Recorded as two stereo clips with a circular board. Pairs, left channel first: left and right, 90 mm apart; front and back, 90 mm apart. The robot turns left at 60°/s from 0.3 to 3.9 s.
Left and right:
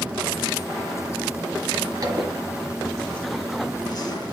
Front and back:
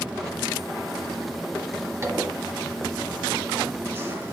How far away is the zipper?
About 2.0 m.